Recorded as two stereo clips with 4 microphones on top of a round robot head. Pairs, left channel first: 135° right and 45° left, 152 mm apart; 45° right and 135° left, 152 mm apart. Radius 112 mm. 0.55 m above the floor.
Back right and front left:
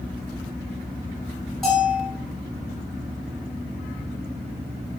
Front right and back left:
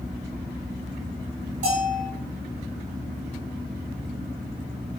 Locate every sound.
1.6 s a bell: 135° left, 2.0 m